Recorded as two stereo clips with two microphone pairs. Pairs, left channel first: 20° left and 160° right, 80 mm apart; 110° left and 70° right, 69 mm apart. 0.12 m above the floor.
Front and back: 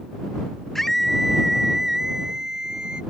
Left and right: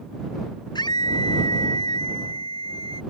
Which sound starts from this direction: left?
A scream, at 0.8 s.